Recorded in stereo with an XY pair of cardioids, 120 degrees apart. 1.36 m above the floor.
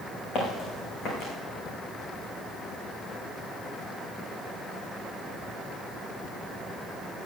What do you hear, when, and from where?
0.3 s footsteps: 60° left, 6 m